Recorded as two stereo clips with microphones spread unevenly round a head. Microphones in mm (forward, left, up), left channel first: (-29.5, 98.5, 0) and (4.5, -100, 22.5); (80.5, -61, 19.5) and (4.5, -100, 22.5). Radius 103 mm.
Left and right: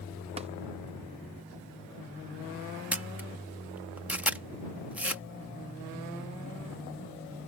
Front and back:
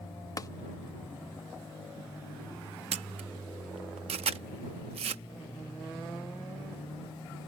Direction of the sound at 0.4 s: 15° right.